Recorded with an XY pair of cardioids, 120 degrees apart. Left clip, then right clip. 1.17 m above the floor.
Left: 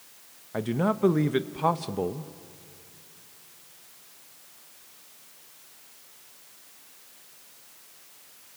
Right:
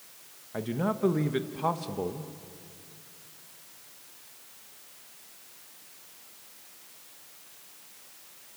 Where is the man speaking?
25° left, 0.8 m.